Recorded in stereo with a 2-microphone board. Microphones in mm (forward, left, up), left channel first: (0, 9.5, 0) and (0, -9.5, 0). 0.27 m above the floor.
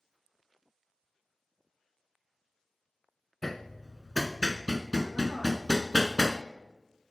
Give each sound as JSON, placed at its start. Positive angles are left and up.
{"t": 3.4, "sound": "hammering", "side_deg": 20, "distance_m": 0.7}